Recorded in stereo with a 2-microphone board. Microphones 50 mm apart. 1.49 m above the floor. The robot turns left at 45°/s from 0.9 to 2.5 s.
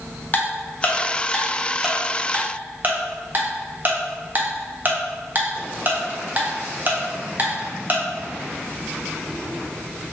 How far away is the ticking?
About 0.5 m.